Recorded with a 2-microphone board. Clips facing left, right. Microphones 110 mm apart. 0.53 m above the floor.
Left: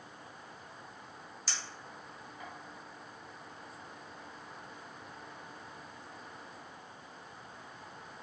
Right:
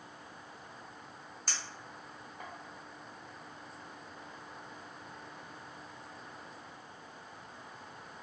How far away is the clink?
About 0.7 m.